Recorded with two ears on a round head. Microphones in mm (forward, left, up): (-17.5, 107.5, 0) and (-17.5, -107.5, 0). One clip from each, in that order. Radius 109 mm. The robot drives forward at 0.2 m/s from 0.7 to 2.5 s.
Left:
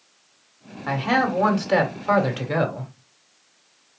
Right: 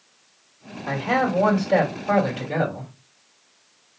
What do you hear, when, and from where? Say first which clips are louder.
0.9 s a man speaking: left 1 dB; 60° left (ahead or behind), 1.9 m; by 2.9 s 55° left (ahead or behind), 1.9 m